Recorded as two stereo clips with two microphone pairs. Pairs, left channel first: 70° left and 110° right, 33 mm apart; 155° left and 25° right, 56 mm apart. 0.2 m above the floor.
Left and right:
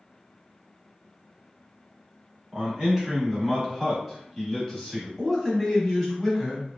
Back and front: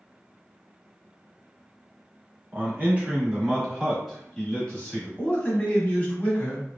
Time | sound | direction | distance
2.5 | a man speaking | 55° right | 1.4 m
5.2 | a man speaking | 170° left | 1.0 m